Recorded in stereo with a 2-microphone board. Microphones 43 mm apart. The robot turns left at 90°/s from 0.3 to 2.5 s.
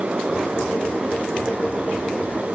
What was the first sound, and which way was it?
Only background noise.